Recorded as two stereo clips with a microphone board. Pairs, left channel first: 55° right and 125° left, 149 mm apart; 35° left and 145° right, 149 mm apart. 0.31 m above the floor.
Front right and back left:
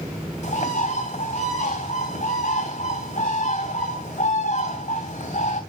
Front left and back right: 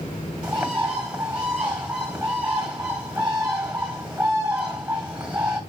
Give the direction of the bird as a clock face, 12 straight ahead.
2 o'clock.